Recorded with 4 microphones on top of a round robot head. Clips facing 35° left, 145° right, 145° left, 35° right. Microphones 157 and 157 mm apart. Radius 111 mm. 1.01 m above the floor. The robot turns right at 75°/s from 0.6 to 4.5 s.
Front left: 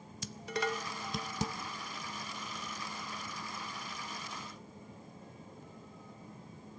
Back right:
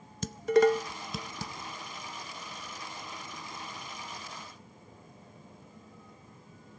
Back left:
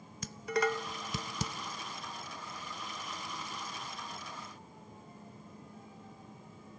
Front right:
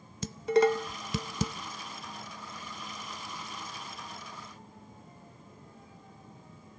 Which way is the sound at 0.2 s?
100° right.